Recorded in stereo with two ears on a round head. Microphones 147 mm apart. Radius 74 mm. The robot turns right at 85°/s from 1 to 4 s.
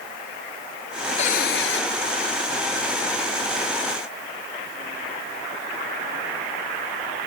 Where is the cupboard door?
40° left; by 1.8 s 95° left.